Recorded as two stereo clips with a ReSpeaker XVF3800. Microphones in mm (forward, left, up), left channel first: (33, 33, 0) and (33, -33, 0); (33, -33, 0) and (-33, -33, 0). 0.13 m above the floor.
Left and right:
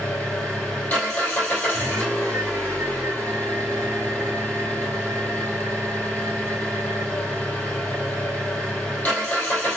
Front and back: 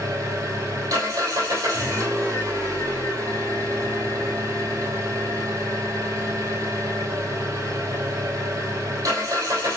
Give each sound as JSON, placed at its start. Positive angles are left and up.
{"t": 0.0, "sound": "an engine running", "azimuth_deg": 155, "distance_m": 3.5}